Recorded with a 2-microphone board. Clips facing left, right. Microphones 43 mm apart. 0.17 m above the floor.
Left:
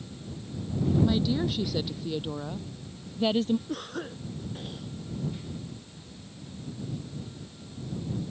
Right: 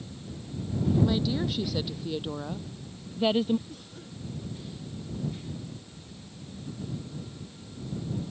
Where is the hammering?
No hammering in this recording.